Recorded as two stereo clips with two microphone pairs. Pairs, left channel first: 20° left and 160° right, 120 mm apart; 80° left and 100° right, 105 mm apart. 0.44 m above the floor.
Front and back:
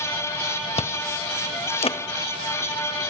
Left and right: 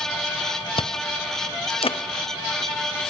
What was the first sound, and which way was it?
Chewing, 55° left.